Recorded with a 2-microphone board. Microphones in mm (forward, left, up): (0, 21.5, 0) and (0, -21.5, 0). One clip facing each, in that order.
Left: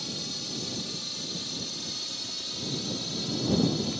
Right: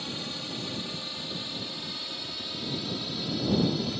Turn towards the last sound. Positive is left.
turn(degrees=-15)  # may be behind; listen again after turning